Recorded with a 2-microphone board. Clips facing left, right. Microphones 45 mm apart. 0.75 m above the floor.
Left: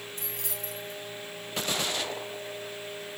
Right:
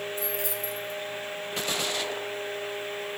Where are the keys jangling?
55° left (ahead or behind), 4.5 m.